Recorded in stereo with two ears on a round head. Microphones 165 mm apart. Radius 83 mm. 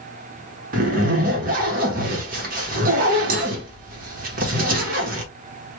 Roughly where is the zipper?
Right.